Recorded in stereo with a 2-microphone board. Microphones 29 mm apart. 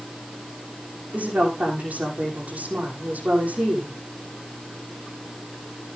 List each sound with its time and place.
1.1 s a woman speaking: 60° right (ahead or behind), 6.5 m